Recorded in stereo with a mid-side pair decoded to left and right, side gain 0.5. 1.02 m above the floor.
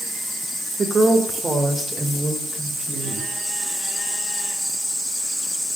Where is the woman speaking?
40° right, 2.0 m; by 3.3 s 25° right, 5 m.